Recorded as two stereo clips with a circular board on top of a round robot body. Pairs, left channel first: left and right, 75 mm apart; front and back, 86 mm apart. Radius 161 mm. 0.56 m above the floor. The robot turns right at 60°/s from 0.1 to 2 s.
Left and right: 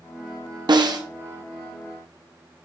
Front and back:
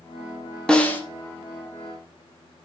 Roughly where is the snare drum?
Right.